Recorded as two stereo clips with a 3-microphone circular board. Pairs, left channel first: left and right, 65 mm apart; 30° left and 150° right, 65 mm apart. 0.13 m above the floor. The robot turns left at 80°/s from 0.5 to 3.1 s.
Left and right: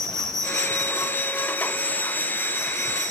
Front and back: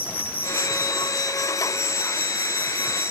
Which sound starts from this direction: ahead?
An insect, at 0.0 s.